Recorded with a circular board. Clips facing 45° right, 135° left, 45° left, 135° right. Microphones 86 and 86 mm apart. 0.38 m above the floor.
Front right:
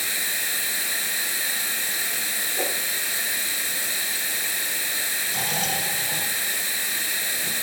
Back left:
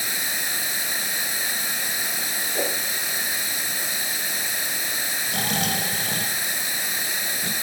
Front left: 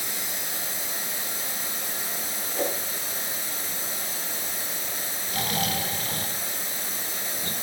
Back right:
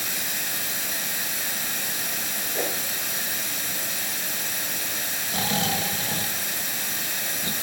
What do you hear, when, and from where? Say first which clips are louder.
0.0 s running water: back left 1 dB, back right 2 dB; 155° right, 1.7 m
2.5 s a whoosh: back left 2 dB, front left 1 dB; 150° left, 2.5 m
5.3 s snoring: back left 2 dB, back right 2 dB; 160° left, 1.9 m